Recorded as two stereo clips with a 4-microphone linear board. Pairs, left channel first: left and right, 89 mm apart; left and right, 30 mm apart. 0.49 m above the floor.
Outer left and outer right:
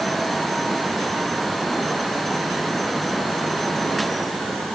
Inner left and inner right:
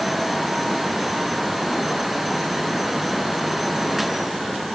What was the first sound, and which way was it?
Only background noise.